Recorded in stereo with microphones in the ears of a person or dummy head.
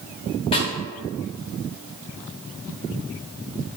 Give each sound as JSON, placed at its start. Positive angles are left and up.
{"t": 0.5, "sound": "a snare drum", "side_deg": 30, "distance_m": 0.6}